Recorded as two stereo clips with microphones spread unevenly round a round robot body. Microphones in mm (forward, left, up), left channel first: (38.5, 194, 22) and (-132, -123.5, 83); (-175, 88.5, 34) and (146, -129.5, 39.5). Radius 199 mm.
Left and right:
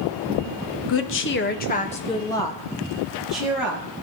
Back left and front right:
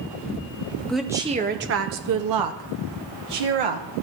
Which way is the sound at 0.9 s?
60° left.